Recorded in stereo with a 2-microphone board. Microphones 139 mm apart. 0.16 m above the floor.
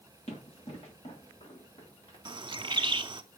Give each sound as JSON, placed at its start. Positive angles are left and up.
{"t": 0.3, "sound": "running footsteps", "side_deg": 55, "distance_m": 6.0}
{"t": 2.2, "sound": "a bird", "side_deg": -35, "distance_m": 0.5}